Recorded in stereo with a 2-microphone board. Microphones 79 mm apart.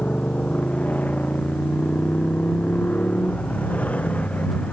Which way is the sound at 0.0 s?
20° left (ahead or behind).